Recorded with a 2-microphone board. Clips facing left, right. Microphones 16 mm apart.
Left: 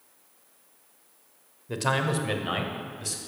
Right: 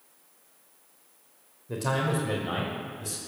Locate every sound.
1.7 s a man speaking: 40° left (ahead or behind), 1.3 m